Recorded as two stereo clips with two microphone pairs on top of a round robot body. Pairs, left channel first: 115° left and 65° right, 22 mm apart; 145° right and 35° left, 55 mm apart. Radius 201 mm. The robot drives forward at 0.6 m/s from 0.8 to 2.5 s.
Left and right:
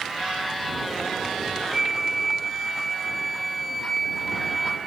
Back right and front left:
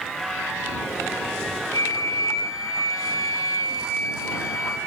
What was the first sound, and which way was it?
A flute, 140° right.